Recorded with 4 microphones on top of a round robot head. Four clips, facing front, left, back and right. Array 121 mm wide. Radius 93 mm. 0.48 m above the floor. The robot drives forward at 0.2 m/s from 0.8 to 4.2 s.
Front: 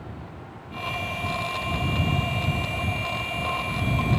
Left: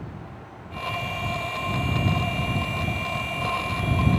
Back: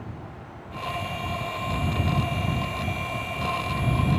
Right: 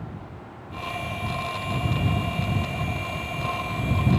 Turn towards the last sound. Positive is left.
No sound to turn to.